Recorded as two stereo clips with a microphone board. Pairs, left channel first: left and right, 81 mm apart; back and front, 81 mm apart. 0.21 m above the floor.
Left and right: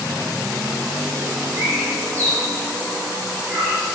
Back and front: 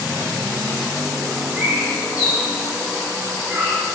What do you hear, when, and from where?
1.6 s a bird: 60° right, 1.6 m